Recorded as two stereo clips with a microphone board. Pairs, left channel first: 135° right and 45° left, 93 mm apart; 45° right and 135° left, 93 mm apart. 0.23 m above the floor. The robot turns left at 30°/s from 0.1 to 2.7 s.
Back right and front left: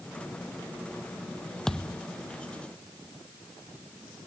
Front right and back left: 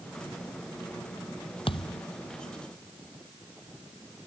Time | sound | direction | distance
1.7 | a thud | 50° right | ?